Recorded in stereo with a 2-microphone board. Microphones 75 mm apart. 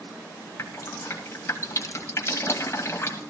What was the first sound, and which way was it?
Dripping, 35° left (ahead or behind).